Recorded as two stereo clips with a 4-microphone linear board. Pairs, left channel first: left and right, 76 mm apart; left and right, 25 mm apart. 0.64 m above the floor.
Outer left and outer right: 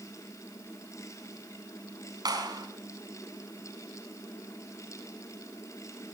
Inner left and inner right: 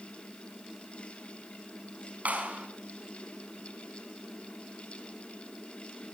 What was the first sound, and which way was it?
A clap, 65° right (ahead or behind).